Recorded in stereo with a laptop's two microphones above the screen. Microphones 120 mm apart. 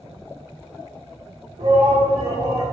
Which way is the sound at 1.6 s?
70° right (ahead or behind).